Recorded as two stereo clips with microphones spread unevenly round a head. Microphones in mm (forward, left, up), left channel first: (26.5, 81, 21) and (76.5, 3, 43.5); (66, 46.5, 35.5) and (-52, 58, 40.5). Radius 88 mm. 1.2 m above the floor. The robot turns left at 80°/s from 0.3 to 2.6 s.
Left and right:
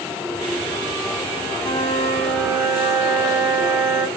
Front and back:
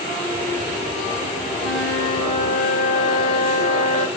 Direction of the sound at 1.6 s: 90° left.